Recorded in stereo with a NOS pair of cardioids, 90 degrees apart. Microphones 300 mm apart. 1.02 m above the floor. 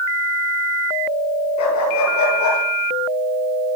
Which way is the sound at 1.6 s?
70° left.